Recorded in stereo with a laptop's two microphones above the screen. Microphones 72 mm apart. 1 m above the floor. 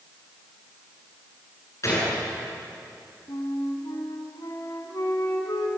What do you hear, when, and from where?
1.8 s a gunshot: 45° left (ahead or behind), 8 m
3.3 s a flute: 60° left (ahead or behind), 2.5 m